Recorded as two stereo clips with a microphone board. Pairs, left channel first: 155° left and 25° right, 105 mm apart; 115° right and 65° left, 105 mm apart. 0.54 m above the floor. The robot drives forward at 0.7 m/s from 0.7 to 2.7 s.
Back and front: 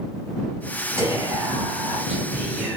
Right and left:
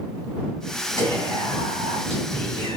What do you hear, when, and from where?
1.0 s whispering: 40° left, 4 m; by 2.8 s 55° left, 3 m